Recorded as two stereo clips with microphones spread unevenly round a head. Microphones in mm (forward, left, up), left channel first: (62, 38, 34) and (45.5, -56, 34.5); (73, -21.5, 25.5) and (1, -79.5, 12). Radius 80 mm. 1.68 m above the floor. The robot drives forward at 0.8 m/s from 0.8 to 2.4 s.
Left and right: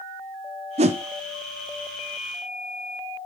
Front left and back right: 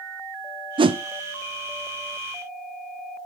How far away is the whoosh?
About 0.5 m.